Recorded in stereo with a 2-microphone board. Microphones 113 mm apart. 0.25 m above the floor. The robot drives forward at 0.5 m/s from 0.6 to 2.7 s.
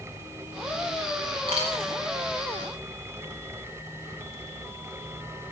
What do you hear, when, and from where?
1.5 s a dropped coin: 55° right (ahead or behind), 7 m